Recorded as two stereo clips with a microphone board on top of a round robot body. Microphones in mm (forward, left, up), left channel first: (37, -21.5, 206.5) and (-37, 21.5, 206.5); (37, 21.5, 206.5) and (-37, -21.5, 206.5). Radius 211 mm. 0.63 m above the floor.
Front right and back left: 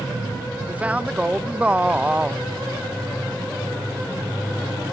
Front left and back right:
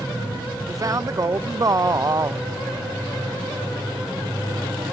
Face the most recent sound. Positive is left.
turn(degrees=-145)